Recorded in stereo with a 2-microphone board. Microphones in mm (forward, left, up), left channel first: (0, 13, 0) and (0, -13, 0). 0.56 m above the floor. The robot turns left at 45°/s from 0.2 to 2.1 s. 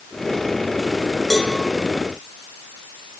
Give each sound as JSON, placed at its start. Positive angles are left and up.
{"t": 1.3, "sound": "a cowbell", "side_deg": 10, "distance_m": 6.0}